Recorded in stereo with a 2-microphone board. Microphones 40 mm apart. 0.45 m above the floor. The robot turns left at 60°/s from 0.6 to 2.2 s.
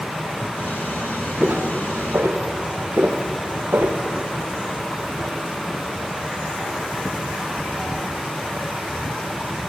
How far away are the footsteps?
About 4 m.